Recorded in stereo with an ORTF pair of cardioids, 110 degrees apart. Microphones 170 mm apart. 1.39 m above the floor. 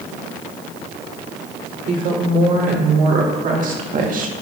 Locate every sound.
1.9 s a woman speaking: 50° right, 4 m; by 4.3 s 55° right, 1.6 m